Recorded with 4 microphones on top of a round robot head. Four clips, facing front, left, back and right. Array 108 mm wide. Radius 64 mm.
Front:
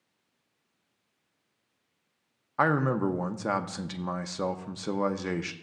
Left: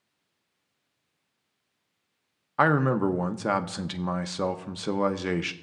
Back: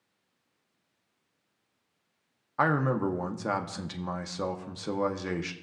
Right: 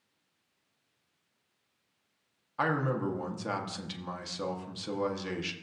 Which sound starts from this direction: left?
A man speaking, at 2.6 s.